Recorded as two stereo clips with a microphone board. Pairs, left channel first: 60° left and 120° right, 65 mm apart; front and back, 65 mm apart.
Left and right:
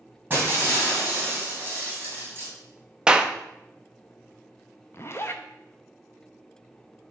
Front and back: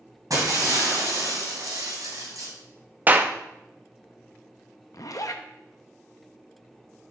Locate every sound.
0.3 s breaking glass: straight behind, 2.5 m
3.1 s a clap: straight behind, 0.5 m
4.9 s a zipper: 15° left, 0.6 m